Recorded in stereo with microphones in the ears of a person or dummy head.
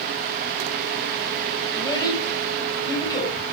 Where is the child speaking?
20° left (ahead or behind), 6 m.